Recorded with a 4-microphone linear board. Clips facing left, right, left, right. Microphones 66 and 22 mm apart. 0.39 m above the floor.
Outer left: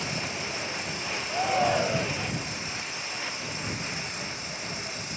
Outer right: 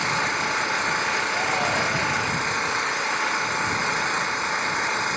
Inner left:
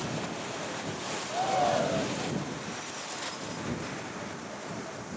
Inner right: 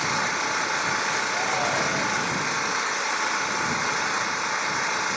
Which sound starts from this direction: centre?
A shout, at 1.3 s.